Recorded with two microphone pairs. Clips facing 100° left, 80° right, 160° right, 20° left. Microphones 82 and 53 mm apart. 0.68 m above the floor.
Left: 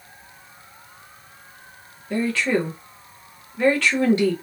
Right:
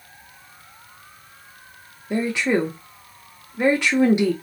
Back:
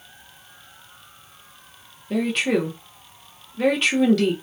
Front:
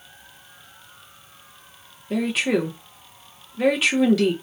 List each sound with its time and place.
2.1 s a woman speaking: 60° right, 0.7 m